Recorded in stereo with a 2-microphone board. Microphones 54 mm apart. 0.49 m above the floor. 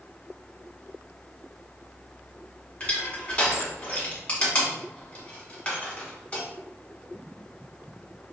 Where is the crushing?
20° left (ahead or behind), 1.2 m.